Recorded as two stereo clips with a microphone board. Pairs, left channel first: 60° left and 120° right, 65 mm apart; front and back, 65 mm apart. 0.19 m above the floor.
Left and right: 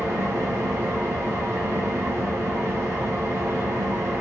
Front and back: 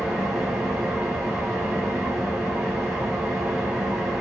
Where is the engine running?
95° right, 1.7 m.